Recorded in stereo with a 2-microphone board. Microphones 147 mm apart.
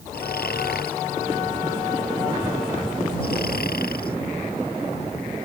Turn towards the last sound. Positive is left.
turn(degrees=80)